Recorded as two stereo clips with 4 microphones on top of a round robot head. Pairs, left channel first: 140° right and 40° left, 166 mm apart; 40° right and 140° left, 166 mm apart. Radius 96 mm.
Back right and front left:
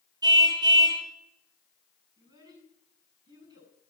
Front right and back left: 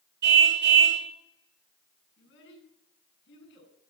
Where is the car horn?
110° left, 3.5 m.